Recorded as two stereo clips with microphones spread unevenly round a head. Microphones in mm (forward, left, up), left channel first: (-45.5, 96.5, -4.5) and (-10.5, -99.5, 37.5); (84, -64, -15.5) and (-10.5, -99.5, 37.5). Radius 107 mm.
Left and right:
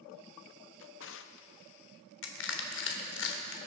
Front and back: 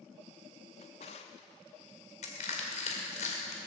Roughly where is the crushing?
Ahead left.